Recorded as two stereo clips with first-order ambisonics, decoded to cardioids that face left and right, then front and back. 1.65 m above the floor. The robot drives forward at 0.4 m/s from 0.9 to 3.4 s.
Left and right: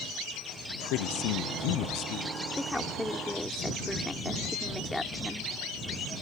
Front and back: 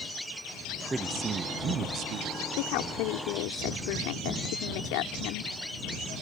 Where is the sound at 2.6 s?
5° left.